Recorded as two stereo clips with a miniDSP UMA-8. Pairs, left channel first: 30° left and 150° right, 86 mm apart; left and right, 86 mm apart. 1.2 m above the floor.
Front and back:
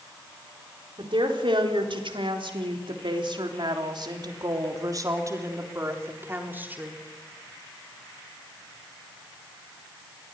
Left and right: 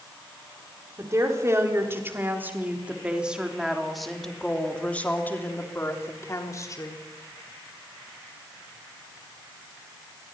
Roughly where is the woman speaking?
Behind right.